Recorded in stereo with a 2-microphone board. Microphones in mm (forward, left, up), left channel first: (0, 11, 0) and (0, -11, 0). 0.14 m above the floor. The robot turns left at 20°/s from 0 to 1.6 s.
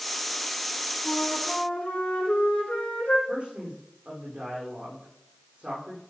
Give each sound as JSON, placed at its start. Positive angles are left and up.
{"t": 1.1, "sound": "a flute", "side_deg": 75, "distance_m": 3.5}
{"t": 3.3, "sound": "a man speaking", "side_deg": -50, "distance_m": 7.0}